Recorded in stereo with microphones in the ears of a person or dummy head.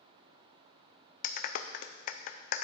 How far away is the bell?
I don't hear a bell.